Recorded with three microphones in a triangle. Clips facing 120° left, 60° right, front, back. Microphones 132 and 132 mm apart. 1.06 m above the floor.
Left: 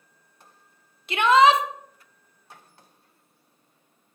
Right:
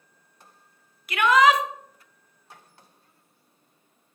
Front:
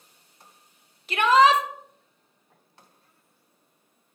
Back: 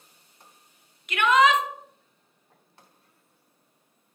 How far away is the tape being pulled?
I don't hear tape being pulled.